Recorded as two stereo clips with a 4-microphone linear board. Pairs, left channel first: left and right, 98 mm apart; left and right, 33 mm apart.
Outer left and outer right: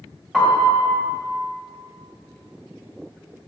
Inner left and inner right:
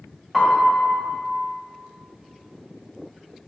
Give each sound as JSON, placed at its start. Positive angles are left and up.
{"t": 0.3, "sound": "a piano", "side_deg": 0, "distance_m": 2.0}